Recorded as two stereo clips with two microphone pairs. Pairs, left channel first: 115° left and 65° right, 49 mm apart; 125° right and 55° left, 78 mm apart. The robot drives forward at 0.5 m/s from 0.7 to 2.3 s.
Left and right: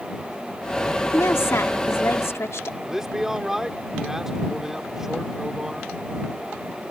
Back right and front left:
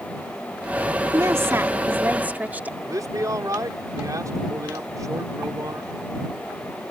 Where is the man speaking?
15° left.